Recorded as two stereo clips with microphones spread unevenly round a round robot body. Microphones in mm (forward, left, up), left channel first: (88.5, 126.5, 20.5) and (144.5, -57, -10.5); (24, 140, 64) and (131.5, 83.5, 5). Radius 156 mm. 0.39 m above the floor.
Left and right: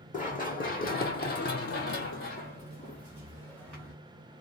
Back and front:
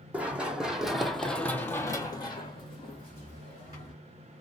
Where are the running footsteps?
60° left, 1.2 m; by 3.9 s 170° right, 1.2 m.